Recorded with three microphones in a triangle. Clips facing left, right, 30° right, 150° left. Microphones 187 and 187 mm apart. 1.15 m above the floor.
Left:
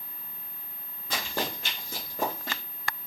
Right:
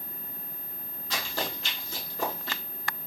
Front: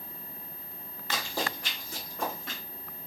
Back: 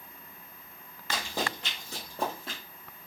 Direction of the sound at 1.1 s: 80° left.